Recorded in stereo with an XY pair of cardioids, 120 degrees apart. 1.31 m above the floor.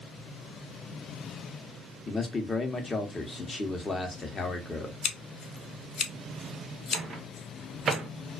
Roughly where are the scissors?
Ahead left.